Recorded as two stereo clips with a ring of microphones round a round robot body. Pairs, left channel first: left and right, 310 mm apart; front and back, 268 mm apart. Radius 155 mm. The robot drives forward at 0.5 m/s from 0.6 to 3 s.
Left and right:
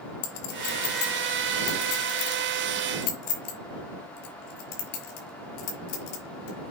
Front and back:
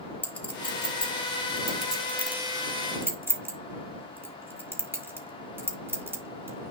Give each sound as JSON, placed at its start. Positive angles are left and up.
{"t": 0.2, "sound": "a clink", "azimuth_deg": 85, "distance_m": 5.0}